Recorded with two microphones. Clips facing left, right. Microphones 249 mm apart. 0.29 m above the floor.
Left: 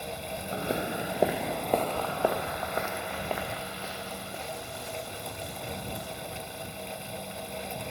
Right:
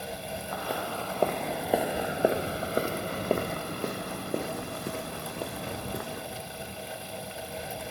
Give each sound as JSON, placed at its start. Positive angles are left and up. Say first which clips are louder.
{"t": 0.5, "sound": "footsteps", "louder": "left 4 dB", "side_deg": 30}